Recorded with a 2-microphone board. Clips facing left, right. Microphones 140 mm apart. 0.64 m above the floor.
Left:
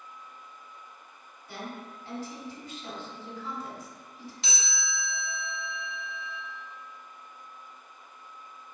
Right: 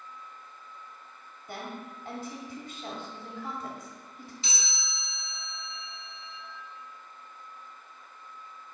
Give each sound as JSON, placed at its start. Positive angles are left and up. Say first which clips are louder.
{"t": 1.5, "sound": "a woman speaking", "louder": "right 1 dB", "side_deg": -50, "distance_m": 1.3}
{"t": 4.4, "sound": "a chime", "louder": "left 4 dB", "side_deg": 80, "distance_m": 1.2}